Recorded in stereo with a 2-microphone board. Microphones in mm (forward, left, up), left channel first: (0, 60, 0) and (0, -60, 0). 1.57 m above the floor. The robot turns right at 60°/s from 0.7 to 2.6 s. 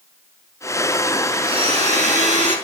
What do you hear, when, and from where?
1.4 s a blender: 135° right, 3.5 m; by 2.5 s 70° right, 3.5 m